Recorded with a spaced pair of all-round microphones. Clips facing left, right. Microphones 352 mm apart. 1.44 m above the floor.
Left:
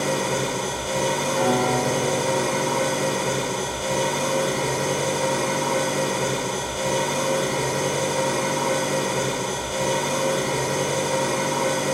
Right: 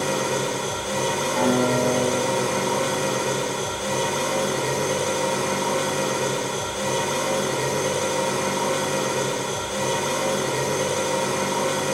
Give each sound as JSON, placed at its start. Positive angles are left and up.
{"t": 0.0, "sound": "an engine running", "side_deg": -20, "distance_m": 1.0}
{"t": 1.4, "sound": "a guitar", "side_deg": -65, "distance_m": 1.4}